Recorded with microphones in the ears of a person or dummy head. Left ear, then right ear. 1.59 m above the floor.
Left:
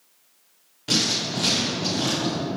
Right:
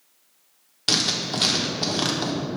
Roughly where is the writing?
Right.